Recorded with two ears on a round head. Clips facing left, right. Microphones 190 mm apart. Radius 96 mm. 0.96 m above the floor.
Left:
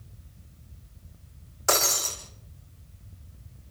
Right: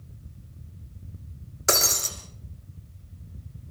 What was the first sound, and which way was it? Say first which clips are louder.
Breaking glass: even; 25° right (ahead or behind).